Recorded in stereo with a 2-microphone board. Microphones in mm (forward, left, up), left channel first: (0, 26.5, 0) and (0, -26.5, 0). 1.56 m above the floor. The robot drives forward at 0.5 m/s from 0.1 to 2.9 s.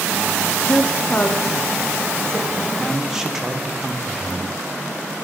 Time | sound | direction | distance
0.7 | a woman speaking | 40° left (ahead or behind) | 0.5 m
2.8 | a man speaking | 10° right (ahead or behind) | 0.9 m